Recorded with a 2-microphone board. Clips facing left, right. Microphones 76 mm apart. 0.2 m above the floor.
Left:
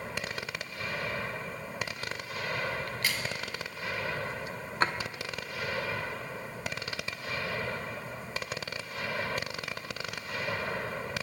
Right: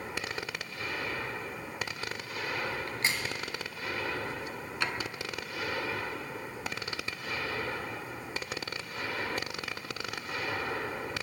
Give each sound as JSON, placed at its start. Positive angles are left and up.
{"t": 2.9, "sound": "a crack", "side_deg": -25, "distance_m": 1.9}
{"t": 4.8, "sound": "a drawer", "side_deg": 40, "distance_m": 0.6}